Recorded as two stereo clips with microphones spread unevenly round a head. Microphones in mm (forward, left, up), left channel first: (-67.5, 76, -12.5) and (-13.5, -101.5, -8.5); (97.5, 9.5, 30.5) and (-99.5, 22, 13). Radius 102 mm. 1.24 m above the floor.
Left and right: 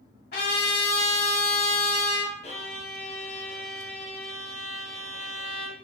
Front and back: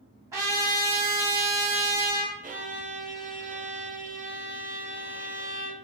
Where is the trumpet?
100° left, 1.4 m.